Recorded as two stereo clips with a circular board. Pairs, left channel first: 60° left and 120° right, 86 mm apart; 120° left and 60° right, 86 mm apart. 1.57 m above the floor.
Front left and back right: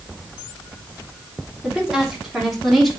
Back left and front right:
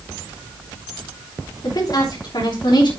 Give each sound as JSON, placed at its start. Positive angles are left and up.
{"t": 1.6, "sound": "a woman speaking", "azimuth_deg": 160, "distance_m": 4.0}